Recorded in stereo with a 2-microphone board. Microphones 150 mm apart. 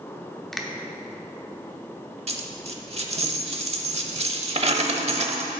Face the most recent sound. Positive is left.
turn(degrees=-45)  # may be behind; listen again after turning